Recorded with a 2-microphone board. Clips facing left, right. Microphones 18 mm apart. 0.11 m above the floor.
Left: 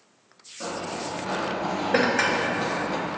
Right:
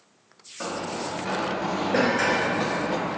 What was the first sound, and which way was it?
Running footsteps, 80° right.